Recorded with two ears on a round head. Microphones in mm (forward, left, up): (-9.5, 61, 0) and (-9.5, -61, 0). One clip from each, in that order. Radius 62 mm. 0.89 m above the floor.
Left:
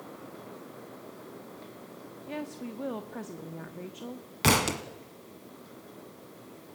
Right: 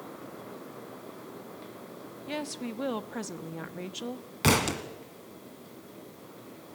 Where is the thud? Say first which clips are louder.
Left 1 dB; 15° left (ahead or behind), 1.1 m.